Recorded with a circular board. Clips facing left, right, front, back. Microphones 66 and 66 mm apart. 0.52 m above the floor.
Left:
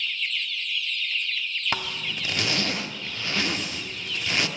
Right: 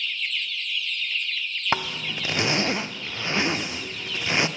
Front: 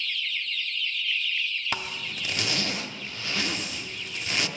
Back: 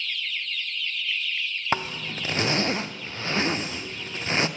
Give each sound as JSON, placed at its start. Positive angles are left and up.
{"t": 1.7, "sound": "a zipper", "azimuth_deg": -140, "distance_m": 0.5}